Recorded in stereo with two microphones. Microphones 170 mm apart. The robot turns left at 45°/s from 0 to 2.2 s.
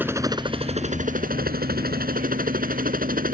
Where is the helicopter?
10° right; by 3.3 s 110° right.